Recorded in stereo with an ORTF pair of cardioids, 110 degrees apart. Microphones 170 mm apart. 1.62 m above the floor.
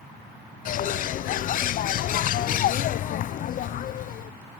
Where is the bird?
55° left, 0.6 m.